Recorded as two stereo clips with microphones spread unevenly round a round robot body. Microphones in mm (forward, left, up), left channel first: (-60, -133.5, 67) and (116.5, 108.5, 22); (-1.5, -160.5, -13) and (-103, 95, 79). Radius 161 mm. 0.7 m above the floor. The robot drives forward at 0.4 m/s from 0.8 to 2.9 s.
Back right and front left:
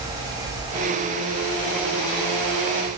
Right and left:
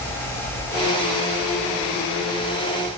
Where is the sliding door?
No sliding door in this recording.